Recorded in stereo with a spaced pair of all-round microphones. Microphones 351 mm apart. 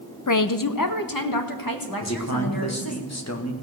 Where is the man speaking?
50° left (ahead or behind), 1.6 m.